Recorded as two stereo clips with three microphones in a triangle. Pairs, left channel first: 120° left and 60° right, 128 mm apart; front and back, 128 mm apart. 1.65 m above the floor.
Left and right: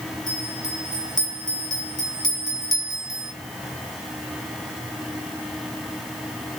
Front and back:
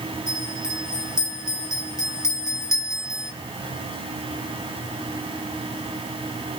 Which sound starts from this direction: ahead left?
A bell, at 0.3 s.